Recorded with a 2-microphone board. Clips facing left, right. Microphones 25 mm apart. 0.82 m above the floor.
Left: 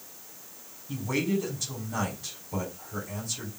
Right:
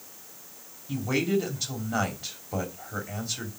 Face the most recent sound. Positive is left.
turn(degrees=-35)  # may be behind; listen again after turning